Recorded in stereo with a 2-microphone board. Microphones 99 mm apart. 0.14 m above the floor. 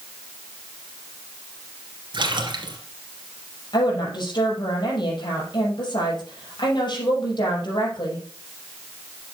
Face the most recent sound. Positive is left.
turn(degrees=50)  # may be behind; listen again after turning